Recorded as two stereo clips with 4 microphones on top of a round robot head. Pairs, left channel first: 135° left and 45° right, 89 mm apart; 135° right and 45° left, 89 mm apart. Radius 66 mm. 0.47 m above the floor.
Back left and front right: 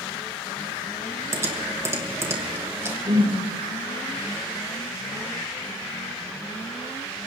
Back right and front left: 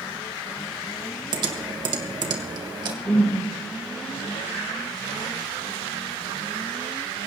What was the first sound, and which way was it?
Typing on a keyboard, 10° left.